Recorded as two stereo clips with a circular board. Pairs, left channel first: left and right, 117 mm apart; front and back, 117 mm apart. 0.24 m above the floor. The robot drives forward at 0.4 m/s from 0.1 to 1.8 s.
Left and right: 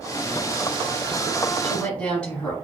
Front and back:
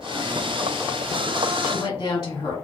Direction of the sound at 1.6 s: 20° left.